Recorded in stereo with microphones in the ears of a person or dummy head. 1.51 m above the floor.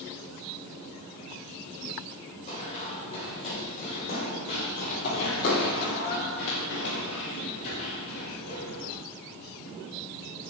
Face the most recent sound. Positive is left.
turn(degrees=55)  # may be behind; listen again after turning